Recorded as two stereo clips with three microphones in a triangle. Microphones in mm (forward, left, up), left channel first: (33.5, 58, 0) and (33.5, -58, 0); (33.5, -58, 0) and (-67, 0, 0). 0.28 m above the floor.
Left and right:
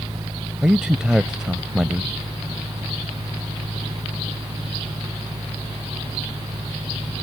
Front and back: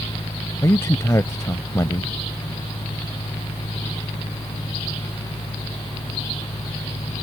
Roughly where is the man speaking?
Ahead.